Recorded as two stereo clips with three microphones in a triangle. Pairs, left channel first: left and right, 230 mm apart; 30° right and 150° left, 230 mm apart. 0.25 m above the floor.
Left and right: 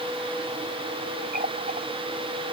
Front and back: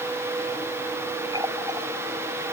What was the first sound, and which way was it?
A running tap, 140° right.